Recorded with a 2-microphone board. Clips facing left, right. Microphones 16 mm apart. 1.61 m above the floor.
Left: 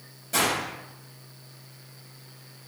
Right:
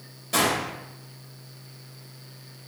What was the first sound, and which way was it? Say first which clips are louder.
A gunshot: right 2 dB; 45° right (ahead or behind).